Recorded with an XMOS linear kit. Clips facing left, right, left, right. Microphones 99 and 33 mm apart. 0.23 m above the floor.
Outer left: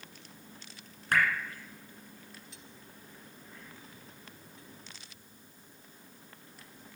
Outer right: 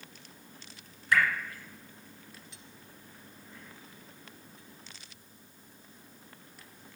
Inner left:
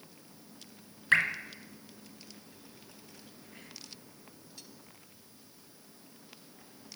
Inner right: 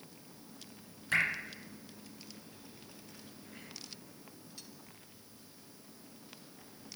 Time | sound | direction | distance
1.1 | dripping | 50° left (ahead or behind) | 2 m